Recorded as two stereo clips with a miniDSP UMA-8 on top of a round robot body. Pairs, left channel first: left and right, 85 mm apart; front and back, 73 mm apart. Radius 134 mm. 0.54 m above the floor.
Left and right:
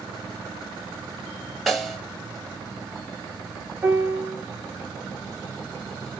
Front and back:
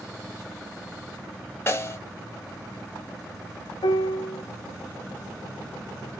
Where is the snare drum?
Straight ahead, 1.4 m.